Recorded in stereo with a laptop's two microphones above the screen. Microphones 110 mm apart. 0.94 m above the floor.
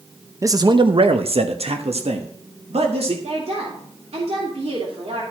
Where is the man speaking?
25° right (ahead or behind), 0.6 m; by 3.1 s 65° right (ahead or behind), 1.8 m.